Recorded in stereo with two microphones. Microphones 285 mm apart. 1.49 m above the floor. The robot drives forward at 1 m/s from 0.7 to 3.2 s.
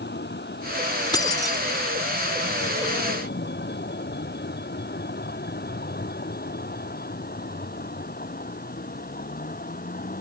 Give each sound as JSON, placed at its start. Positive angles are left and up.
{"t": 0.0, "sound": "a vehicle", "side_deg": 35}
{"t": 1.1, "sound": "keys jangling", "side_deg": 15}